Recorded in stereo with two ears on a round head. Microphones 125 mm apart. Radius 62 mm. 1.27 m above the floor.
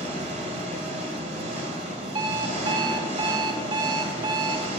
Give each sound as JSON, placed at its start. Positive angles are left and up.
{"t": 0.0, "sound": "an engine running", "side_deg": -50, "distance_m": 2.0}
{"t": 2.1, "sound": "an alarm clock", "side_deg": -30, "distance_m": 0.6}